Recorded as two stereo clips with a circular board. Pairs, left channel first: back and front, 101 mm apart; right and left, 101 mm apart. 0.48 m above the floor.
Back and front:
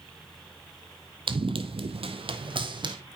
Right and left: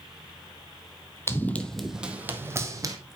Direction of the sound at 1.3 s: 25° right.